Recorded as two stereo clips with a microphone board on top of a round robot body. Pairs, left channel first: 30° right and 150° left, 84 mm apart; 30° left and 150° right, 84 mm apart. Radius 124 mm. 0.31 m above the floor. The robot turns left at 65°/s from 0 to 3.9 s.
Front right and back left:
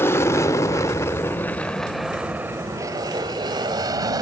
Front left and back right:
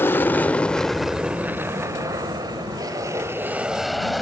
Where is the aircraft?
5° right; by 4.2 s 120° left.